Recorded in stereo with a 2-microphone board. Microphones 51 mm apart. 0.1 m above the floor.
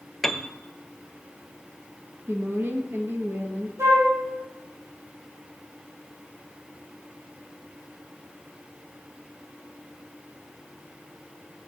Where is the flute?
70° right (ahead or behind), 6.5 m.